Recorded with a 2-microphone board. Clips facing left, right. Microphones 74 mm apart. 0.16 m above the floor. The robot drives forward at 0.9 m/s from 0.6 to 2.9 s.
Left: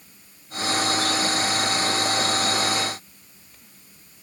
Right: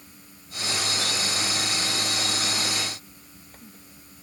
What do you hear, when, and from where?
Only background noise.